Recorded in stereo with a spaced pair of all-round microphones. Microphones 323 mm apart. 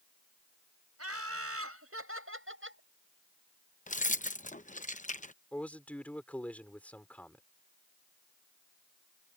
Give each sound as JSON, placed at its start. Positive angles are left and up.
{"t": 1.0, "sound": "laughter", "side_deg": -45}
{"t": 3.9, "sound": "keys jangling", "side_deg": 25}
{"t": 5.5, "sound": "a man speaking", "side_deg": 5}